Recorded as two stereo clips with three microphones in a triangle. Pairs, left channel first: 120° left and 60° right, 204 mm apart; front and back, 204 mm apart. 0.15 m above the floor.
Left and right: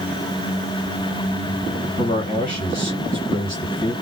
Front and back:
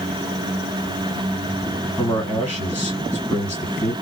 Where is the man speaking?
75° left, 2 m.